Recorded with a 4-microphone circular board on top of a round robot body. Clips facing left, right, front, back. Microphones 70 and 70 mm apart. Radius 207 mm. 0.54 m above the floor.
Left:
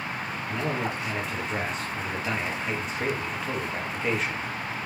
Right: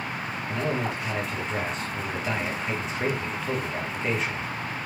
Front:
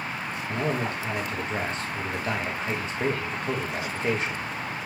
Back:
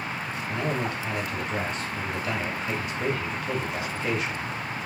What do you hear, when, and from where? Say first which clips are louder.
0.5 s a man speaking: right 1 dB, front 1 dB; straight ahead, 0.9 m